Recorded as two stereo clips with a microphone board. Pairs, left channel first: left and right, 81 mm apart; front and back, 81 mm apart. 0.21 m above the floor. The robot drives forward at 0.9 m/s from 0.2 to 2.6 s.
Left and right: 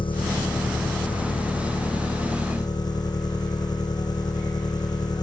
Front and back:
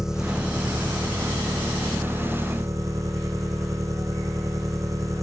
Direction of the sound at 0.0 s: 95° left.